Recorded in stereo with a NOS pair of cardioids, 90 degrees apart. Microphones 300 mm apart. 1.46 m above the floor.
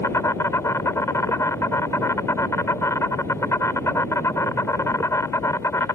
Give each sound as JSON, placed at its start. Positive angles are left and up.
{"t": 0.0, "sound": "an insect", "azimuth_deg": 10}